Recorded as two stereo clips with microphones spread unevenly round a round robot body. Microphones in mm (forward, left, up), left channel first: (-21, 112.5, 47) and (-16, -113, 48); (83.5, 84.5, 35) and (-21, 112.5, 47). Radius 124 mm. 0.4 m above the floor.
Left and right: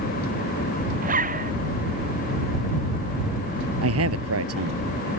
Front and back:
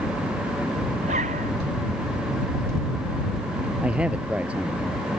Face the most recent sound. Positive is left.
turn(degrees=-110)